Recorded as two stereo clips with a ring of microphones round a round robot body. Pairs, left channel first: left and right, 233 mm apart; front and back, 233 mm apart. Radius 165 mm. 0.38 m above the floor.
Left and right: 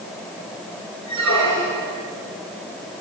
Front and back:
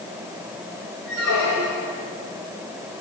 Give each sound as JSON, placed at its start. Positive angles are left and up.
{"t": 1.1, "sound": "a squeak", "azimuth_deg": -130, "distance_m": 6.0}